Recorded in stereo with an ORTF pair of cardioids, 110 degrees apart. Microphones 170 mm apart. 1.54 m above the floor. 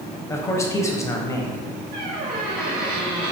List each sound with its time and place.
0.3 s a man speaking: 20° left, 0.9 m
1.9 s a squeak: 60° right, 1.5 m